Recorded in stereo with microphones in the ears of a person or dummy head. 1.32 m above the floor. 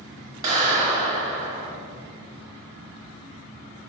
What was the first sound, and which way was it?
A clap, 20° right (ahead or behind).